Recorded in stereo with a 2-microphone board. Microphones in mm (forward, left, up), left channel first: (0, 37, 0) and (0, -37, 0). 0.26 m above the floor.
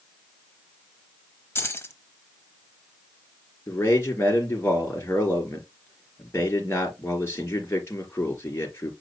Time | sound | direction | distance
1.6 | keys jangling | 35° left (ahead or behind) | 1.0 m
3.7 | a man speaking | 35° left (ahead or behind) | 3.5 m